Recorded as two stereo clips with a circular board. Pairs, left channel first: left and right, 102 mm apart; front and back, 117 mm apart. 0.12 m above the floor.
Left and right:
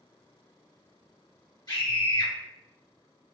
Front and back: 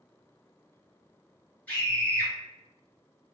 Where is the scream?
70° left, 2.0 m.